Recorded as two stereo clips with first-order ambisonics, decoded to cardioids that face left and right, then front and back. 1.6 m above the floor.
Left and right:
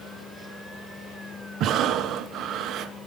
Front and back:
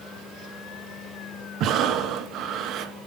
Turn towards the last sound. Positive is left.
turn(degrees=-135)